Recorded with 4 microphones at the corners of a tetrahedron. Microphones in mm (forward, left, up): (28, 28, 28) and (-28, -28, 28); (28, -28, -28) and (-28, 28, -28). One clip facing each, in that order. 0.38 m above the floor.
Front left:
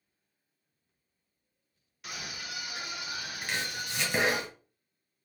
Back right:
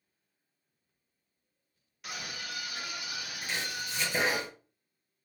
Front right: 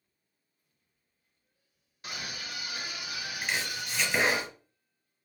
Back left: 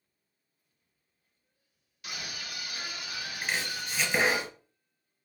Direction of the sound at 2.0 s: 45° right.